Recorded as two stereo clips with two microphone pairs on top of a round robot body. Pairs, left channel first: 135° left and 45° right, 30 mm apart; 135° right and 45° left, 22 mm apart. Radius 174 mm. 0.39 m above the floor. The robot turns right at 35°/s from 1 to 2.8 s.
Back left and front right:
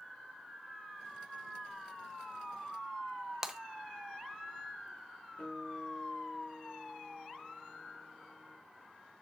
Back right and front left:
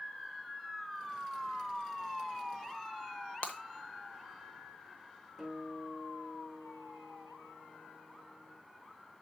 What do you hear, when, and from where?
3.4 s breaking glass: 115° right, 1.1 m
5.4 s a guitar: 135° left, 6 m